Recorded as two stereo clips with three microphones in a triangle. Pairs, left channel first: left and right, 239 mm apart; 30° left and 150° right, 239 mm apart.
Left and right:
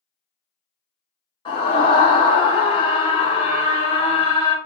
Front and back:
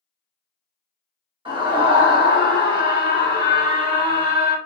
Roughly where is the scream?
Behind left.